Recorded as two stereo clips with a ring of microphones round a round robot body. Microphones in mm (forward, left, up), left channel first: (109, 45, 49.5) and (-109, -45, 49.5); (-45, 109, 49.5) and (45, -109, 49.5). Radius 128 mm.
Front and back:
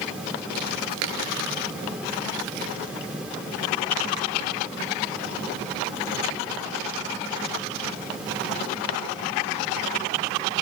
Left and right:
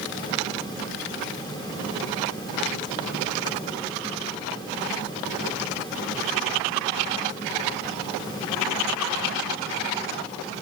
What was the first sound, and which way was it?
Only background noise.